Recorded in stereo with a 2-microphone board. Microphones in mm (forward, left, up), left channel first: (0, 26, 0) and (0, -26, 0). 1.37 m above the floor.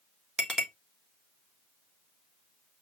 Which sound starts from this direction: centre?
A clink, at 0.4 s.